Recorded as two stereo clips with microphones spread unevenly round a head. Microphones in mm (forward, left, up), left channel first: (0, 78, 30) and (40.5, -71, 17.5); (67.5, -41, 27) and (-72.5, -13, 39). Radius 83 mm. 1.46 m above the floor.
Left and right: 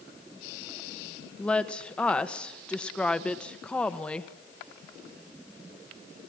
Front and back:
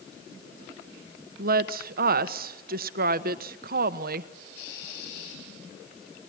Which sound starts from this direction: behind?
A woman speaking, at 1.4 s.